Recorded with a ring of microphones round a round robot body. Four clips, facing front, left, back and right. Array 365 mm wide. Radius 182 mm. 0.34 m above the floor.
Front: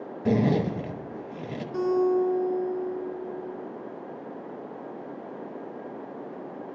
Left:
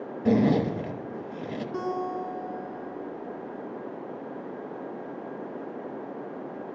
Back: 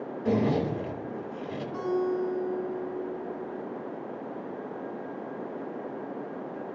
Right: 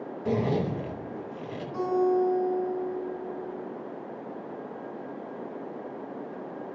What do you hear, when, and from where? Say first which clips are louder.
0.2 s a zipper: left 5 dB, front 2 dB; 45° left, 1.5 m
1.7 s a guitar: right 8 dB, front 5 dB; 35° left, 8 m